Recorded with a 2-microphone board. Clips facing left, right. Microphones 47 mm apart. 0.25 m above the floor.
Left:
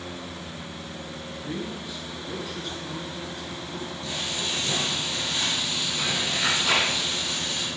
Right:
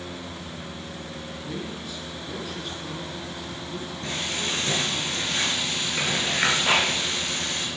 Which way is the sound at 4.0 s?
50° right (ahead or behind).